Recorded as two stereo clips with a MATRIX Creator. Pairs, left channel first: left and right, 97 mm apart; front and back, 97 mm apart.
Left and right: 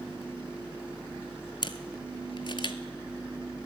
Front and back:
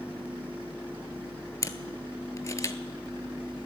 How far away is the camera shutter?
About 0.6 m.